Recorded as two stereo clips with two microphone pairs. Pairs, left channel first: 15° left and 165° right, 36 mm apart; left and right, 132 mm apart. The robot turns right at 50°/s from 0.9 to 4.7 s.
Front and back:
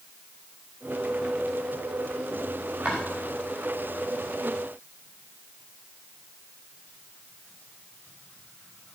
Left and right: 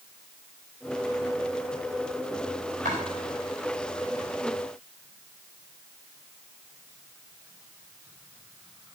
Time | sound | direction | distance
2.9 | chopping | 110° right | 5.5 m